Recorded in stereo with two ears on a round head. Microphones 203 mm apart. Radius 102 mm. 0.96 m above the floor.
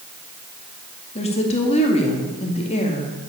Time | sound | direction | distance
1.1 | a woman speaking | 30° left (ahead or behind) | 2 m